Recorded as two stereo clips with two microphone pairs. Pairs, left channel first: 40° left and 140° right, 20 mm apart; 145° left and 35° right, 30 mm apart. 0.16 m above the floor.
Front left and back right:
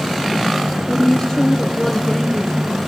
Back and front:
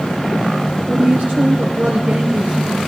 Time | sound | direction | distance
0.9 | a woman speaking | 40° right | 2 m